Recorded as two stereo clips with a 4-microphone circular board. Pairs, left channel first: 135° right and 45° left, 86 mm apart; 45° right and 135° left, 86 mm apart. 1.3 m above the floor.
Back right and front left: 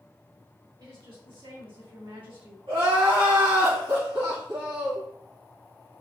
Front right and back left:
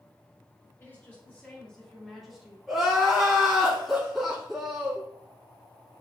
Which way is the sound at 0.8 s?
20° left.